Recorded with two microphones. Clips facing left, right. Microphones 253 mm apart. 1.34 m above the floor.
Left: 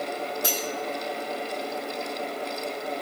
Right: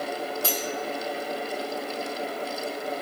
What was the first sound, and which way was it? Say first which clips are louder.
Cutlery clinking: even; 20° left (ahead or behind).